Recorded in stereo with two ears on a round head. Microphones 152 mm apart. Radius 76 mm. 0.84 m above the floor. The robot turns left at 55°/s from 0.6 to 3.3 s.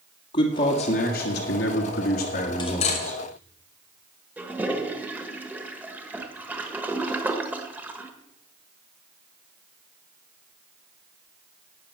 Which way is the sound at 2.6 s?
25° left (ahead or behind).